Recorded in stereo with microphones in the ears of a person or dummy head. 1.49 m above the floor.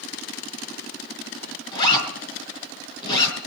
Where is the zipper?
25° left (ahead or behind), 5 m.